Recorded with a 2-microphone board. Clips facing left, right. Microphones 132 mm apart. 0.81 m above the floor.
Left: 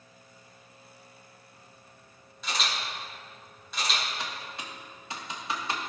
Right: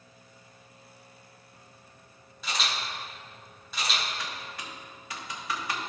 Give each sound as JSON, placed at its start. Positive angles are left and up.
{"t": 2.4, "sound": "a camera shutter", "side_deg": 0, "distance_m": 3.0}
{"t": 4.2, "sound": "typing on a keyboard", "side_deg": 25, "distance_m": 1.2}